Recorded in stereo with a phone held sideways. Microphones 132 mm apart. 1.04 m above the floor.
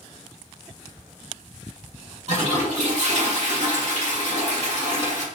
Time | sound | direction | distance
2.3 | a toilet flushing | 55° right (ahead or behind) | 1.6 m